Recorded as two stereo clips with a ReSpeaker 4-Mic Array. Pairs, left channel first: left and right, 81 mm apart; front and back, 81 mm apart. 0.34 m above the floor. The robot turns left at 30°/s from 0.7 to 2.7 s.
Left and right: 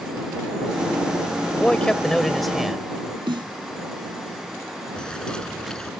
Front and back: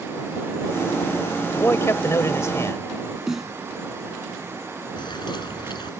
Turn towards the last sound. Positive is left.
turn(degrees=10)